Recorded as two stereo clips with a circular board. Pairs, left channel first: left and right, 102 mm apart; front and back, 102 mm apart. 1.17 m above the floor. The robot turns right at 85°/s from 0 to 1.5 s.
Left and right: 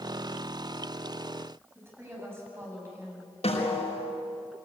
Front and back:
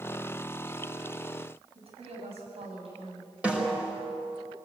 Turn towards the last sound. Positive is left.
turn(degrees=100)